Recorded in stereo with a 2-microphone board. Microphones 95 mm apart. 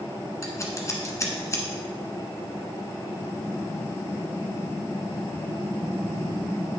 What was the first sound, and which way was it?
Scissors, 30° left (ahead or behind).